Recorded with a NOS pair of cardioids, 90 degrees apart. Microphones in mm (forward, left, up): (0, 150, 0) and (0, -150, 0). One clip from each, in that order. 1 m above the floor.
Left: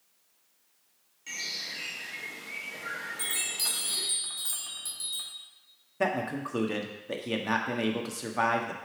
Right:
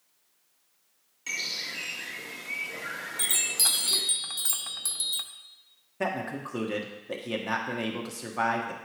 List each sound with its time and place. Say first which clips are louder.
1.3 s a bird: right 3 dB; 50° right, 1.3 m
3.2 s a chime: right 6 dB; 45° right, 0.8 m
6.0 s a man speaking: left 2 dB; 5° left, 1.3 m